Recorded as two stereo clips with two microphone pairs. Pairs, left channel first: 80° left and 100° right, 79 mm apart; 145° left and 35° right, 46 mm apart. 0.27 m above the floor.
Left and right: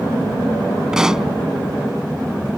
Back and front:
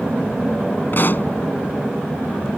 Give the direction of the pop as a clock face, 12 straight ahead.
6 o'clock.